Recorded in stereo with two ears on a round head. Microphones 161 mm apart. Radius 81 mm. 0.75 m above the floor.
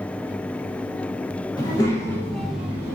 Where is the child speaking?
25° left (ahead or behind), 0.8 m; by 3.0 s 15° right (ahead or behind), 0.6 m.